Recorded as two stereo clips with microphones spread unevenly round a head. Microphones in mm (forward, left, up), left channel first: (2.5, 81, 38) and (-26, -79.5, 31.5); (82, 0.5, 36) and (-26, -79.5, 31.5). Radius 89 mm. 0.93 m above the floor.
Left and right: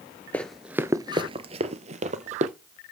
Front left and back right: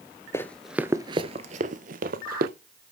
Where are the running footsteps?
20° left, 0.9 m; by 2.5 s 145° right, 1.9 m.